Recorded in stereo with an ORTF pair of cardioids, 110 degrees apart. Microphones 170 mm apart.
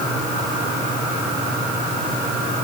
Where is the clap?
No clap in this recording.